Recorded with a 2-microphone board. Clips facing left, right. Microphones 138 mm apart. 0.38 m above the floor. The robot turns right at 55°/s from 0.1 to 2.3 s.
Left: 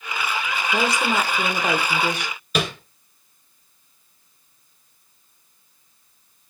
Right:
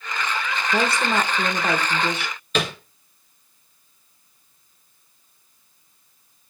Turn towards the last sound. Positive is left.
turn(degrees=10)  # may be behind; listen again after turning